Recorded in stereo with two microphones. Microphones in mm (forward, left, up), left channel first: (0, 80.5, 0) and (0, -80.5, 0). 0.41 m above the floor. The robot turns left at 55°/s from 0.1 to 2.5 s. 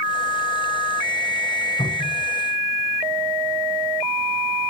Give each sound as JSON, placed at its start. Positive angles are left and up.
{"t": 1.8, "sound": "a cupboard door", "side_deg": 35, "distance_m": 6.0}